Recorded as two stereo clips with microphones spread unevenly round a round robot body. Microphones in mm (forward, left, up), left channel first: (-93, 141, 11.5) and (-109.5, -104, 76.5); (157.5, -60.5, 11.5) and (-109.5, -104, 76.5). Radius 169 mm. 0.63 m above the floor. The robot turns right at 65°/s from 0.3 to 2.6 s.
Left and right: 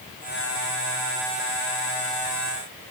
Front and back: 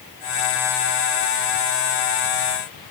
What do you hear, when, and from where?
Only background noise.